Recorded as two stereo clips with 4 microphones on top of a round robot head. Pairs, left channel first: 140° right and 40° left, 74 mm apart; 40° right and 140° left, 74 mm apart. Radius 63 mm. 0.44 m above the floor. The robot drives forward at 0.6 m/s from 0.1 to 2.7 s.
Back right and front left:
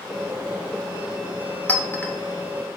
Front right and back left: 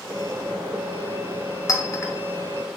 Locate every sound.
1.7 s a clink: 70° right, 1.1 m; by 2.1 s 90° right, 1.0 m